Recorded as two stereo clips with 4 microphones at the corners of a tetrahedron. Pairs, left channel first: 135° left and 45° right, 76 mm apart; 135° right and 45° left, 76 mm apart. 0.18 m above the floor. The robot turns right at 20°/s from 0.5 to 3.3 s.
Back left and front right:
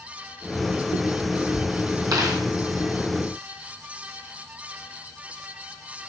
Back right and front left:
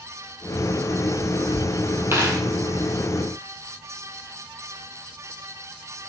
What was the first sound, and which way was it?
A dropped coin, 10° right.